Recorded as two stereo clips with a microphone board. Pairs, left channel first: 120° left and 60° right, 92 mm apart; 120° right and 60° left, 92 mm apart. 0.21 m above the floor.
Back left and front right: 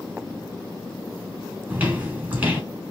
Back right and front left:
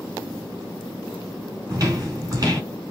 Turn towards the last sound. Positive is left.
turn(degrees=10)